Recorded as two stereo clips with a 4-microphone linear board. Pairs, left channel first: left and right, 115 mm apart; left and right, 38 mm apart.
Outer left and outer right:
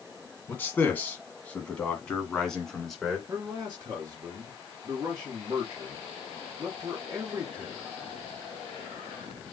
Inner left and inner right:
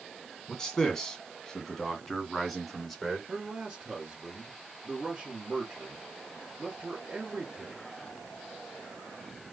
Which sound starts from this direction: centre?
A man speaking, at 0.5 s.